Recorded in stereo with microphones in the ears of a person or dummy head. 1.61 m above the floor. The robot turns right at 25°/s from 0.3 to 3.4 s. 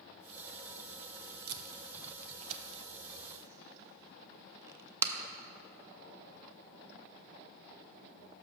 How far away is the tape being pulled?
About 0.6 m.